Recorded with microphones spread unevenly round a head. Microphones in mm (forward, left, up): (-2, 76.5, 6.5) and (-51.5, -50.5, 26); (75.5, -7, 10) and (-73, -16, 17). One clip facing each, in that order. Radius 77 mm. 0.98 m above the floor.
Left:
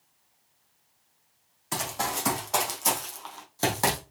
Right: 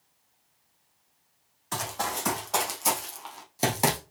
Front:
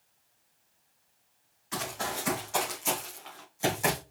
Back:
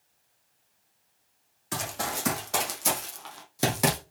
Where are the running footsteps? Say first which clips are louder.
Left 1 dB, back 2 dB; 150° left, 3 m; by 4.0 s 175° right, 2.5 m.